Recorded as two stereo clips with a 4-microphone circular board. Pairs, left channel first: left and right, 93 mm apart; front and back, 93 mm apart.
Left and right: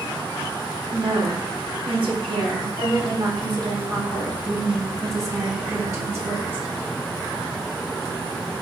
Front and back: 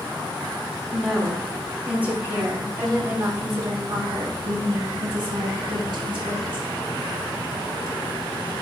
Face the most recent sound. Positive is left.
turn(degrees=-155)